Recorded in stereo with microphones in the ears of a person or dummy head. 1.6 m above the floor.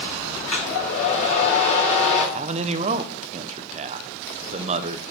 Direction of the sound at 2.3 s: 35° right (ahead or behind).